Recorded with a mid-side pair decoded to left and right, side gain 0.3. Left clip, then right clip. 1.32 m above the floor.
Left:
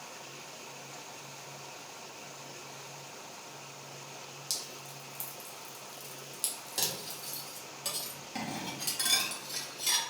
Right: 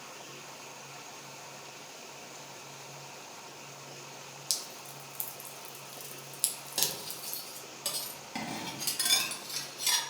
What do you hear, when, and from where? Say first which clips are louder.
4.5 s dripping: right 2 dB; 55° right, 0.7 m
6.8 s cutlery clinking: right 1 dB; 40° right, 1.4 m